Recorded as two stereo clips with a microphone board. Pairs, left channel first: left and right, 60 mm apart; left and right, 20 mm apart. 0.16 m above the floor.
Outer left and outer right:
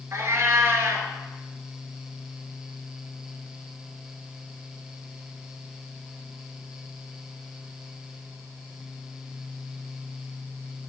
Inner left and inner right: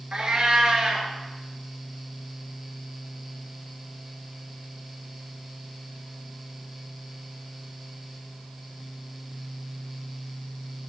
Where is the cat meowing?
50° right (ahead or behind), 0.5 m.